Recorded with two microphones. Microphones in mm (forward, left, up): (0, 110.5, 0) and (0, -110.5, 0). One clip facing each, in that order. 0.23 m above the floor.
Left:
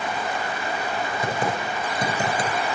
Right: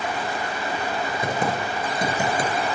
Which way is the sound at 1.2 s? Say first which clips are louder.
Right 1 dB; 20° right (ahead or behind).